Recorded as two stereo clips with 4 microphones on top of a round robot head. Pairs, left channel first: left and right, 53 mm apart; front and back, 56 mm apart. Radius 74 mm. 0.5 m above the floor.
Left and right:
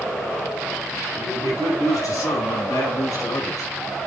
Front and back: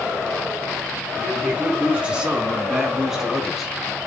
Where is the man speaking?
110° left, 5.5 m; by 3.7 s 90° left, 5 m.